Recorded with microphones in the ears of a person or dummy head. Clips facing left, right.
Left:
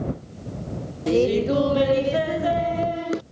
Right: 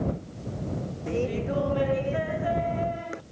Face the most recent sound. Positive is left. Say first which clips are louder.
# left 10 dB
turn(degrees=50)  # may be behind; listen again after turning